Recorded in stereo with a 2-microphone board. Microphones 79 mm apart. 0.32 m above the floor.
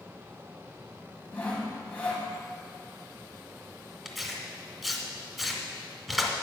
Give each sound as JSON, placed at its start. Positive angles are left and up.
{"t": 1.3, "sound": "sawing", "side_deg": 20, "distance_m": 1.6}
{"t": 4.0, "sound": "tearing paper", "side_deg": 0, "distance_m": 1.2}